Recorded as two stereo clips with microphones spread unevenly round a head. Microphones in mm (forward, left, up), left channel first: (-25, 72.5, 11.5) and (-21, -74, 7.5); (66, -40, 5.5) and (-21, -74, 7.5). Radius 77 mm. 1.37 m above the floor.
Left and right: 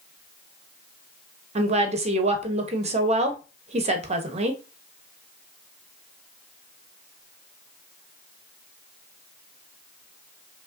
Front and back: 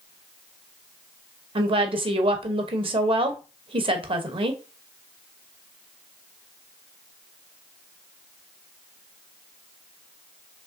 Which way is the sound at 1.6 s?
135° right.